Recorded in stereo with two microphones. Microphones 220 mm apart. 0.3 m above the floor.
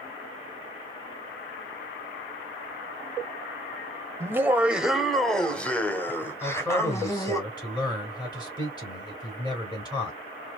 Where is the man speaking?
20° left (ahead or behind), 3 m.